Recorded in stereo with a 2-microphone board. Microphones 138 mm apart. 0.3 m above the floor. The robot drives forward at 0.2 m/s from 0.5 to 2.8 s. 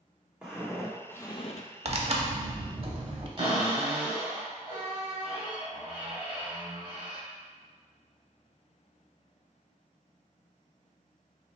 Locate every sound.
0.4 s footsteps: 10° right (ahead or behind), 1.3 m; by 1.7 s 65° left (ahead or behind), 0.5 m
1.9 s tearing paper: 50° right (ahead or behind), 0.6 m; by 3.3 s 45° right (ahead or behind), 0.7 m
3.4 s a cupboard door: 45° right (ahead or behind), 1.7 m